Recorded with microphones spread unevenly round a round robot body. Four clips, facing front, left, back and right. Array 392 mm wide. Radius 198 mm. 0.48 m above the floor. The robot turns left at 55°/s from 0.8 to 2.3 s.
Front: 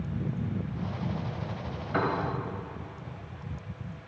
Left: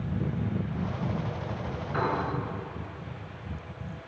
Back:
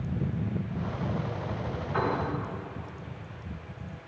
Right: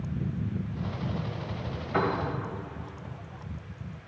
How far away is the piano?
About 2 m.